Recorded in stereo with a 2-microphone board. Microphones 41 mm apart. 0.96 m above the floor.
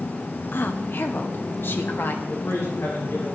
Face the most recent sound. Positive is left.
turn(degrees=80)